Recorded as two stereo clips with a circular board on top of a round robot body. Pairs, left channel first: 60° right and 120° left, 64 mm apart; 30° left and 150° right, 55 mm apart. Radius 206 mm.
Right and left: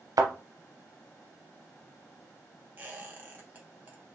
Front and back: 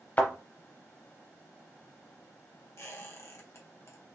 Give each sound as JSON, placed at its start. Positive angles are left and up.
{"t": 0.2, "sound": "a thud", "azimuth_deg": 90, "distance_m": 0.7}
{"t": 2.8, "sound": "a squeak", "azimuth_deg": 60, "distance_m": 1.4}